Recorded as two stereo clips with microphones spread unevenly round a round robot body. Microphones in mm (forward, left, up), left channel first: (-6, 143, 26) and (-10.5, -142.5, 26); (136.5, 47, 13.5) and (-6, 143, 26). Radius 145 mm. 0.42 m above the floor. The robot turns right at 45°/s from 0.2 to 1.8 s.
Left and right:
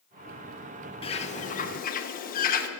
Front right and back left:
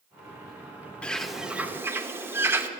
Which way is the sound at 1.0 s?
35° left.